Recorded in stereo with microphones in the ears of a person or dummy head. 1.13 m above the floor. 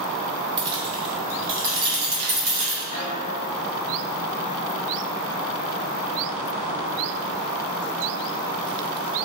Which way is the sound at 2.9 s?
30° left (ahead or behind).